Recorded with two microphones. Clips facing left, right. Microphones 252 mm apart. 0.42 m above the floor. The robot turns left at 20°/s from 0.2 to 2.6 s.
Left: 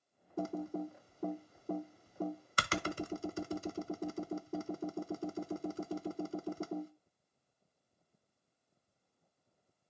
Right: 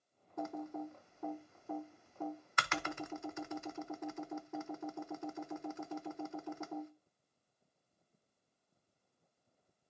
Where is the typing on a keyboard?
35° left (ahead or behind), 0.5 m.